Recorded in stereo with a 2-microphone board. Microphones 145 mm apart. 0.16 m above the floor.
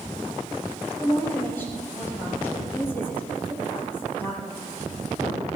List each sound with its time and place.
1.0 s a woman speaking: 15° left (ahead or behind), 3.5 m